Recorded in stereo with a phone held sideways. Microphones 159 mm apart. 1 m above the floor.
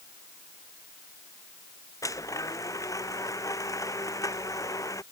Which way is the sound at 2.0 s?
20° left (ahead or behind).